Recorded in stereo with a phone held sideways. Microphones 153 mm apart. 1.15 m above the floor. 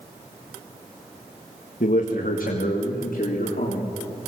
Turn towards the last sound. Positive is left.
turn(degrees=75)  # may be behind; listen again after turning